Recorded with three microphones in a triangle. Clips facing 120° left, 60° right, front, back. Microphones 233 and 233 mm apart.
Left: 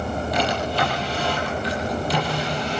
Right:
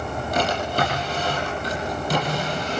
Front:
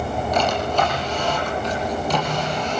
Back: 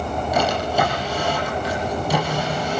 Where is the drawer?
100° right, 10 m.